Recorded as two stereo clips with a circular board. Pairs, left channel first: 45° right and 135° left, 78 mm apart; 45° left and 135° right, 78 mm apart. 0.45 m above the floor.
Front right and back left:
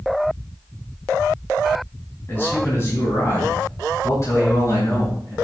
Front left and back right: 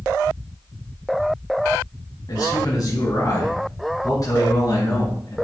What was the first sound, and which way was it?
A man speaking, 15° left.